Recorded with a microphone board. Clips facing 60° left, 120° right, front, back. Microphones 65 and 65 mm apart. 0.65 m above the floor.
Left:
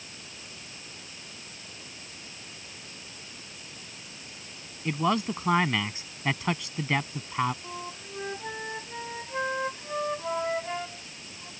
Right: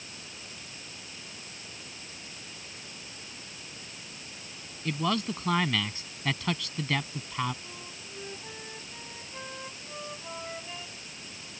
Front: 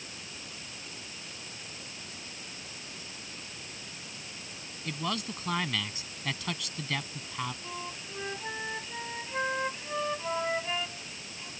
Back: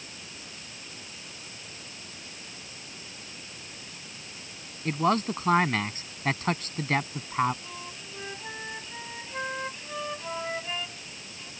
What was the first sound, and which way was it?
A man speaking, 130° left.